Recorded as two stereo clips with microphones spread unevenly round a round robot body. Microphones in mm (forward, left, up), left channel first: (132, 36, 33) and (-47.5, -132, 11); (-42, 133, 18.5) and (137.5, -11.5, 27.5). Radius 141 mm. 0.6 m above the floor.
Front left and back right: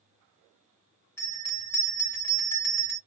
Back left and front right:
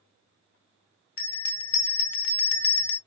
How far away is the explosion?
I don't hear an explosion.